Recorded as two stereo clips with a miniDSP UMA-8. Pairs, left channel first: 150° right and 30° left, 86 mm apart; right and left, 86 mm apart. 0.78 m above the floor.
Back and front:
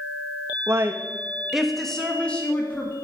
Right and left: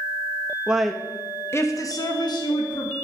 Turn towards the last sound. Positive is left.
turn(degrees=-80)